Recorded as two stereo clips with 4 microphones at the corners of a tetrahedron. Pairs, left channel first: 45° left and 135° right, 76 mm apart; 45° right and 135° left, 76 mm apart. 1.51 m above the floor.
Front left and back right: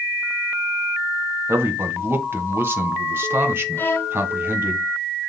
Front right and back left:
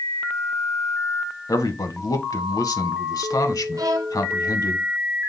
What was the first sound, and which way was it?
A man speaking, 75° right.